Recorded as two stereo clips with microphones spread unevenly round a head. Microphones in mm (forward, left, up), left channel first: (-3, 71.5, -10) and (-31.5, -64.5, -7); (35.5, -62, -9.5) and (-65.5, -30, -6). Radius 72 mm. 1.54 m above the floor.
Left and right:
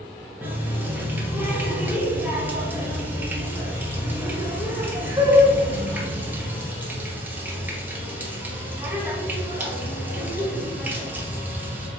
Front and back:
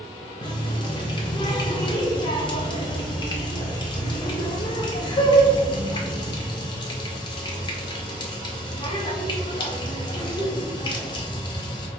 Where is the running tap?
30° right, 0.8 m.